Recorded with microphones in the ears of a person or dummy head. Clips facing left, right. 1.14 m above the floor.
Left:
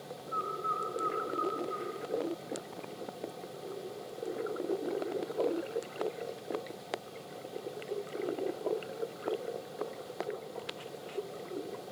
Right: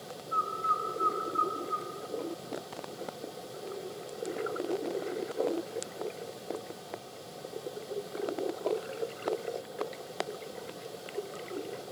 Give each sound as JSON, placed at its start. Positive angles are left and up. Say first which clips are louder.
{"t": 0.3, "sound": "a bird", "louder": "right 2 dB", "side_deg": -50, "distance_m": 3.0}